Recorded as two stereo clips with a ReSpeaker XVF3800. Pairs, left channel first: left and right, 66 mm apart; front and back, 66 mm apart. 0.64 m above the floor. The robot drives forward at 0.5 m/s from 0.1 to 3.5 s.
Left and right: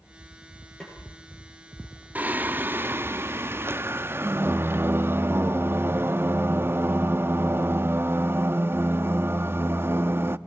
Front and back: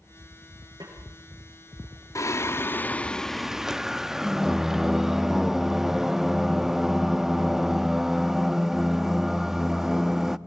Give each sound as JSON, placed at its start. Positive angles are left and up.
{"t": 0.8, "sound": "a snare drum", "azimuth_deg": 165, "distance_m": 8.5}
{"t": 2.1, "sound": "singing", "azimuth_deg": -30, "distance_m": 0.8}